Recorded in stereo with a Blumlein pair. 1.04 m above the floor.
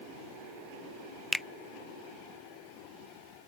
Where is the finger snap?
5° left.